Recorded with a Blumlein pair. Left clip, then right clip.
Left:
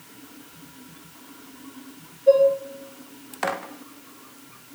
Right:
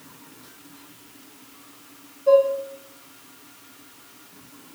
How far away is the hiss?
I don't hear a hiss.